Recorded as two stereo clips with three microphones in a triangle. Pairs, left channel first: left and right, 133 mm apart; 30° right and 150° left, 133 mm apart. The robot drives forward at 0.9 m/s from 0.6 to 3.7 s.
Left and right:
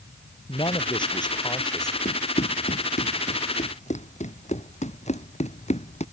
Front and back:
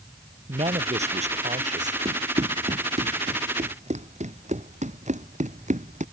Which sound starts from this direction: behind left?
A man speaking, at 0.5 s.